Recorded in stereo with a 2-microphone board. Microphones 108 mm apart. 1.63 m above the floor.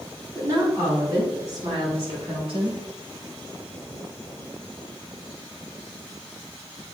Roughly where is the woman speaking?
Right.